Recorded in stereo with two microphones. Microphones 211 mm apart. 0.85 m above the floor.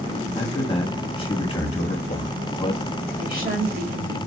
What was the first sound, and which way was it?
A man speaking, 25° left (ahead or behind).